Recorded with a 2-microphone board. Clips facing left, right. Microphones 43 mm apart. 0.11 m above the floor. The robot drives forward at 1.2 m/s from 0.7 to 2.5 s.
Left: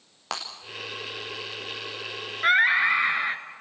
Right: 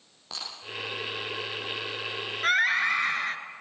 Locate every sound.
0.3 s breaking glass: 70° left (ahead or behind), 6 m
2.4 s a scream: 20° left (ahead or behind), 1.7 m; by 3.4 s 15° left (ahead or behind), 1.7 m